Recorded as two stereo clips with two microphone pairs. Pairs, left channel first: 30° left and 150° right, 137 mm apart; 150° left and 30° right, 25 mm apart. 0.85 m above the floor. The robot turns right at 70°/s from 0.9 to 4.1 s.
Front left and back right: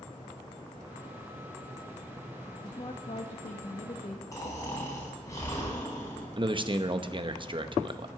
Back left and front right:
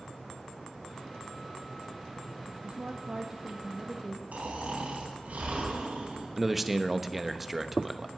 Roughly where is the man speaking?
Right.